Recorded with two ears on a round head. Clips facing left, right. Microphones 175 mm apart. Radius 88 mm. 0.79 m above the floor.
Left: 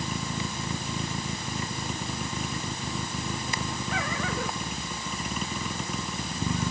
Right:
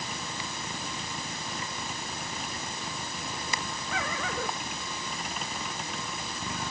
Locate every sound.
0.0 s a vehicle: 90° left; by 6.7 s 85° left